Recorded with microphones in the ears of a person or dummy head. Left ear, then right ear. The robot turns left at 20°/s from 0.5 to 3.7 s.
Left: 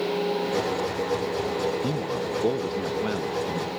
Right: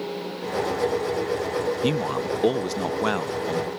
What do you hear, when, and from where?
1.8 s a man speaking: 110° right; by 3.7 s 145° right